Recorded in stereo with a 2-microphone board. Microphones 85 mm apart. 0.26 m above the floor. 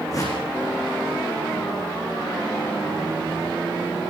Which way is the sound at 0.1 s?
40° left (ahead or behind).